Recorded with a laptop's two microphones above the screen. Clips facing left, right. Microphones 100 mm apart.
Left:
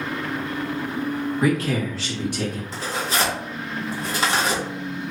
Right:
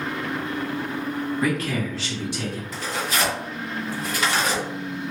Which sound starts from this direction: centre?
A man speaking, at 1.4 s.